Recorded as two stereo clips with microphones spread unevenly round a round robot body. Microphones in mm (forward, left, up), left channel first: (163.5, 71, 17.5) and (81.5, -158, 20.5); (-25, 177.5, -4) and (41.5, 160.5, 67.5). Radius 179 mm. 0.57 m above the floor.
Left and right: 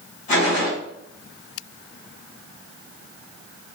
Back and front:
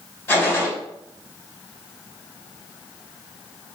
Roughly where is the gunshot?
Behind left.